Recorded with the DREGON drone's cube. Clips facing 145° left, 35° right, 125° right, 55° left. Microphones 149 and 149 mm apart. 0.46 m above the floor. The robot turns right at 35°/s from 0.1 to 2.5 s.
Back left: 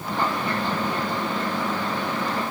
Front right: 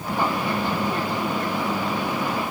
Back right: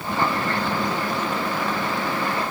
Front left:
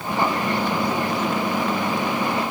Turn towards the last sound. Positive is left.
No sound to turn to.